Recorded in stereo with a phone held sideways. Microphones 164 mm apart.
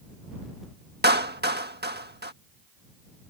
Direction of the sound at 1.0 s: 80° right.